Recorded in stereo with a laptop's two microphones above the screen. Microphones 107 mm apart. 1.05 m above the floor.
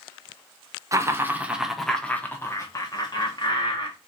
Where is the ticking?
I don't hear ticking.